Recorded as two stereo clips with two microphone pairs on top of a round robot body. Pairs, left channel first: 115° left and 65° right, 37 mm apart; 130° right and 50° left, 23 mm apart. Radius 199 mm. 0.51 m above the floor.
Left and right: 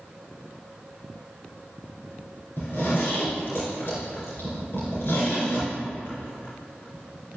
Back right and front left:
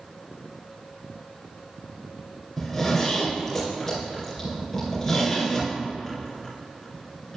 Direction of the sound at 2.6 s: 150° left.